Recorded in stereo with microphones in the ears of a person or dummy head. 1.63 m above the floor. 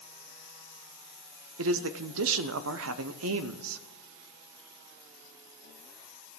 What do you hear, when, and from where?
1.6 s a man speaking: 75° right (ahead or behind), 0.7 m